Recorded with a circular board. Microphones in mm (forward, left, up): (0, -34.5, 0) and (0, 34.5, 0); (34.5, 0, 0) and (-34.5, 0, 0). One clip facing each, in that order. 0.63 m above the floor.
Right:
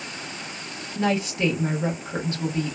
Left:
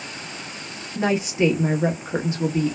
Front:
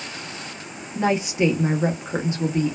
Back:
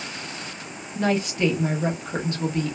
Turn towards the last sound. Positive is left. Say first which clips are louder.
# left 3 dB, front 2 dB
turn(degrees=45)